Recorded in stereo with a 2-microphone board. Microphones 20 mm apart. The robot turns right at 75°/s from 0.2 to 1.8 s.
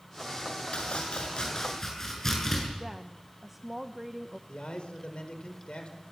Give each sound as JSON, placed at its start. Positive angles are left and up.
{"t": 0.7, "sound": "chopping", "azimuth_deg": 70, "distance_m": 7.5}
{"t": 2.8, "sound": "a woman speaking", "side_deg": -15, "distance_m": 0.9}
{"t": 4.5, "sound": "a man speaking", "side_deg": 65, "distance_m": 4.5}